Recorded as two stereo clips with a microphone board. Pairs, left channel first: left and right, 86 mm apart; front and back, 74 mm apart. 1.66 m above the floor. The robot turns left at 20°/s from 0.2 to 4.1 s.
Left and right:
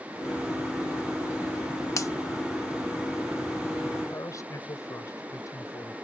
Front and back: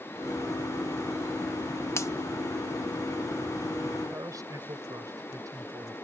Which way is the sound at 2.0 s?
45° left.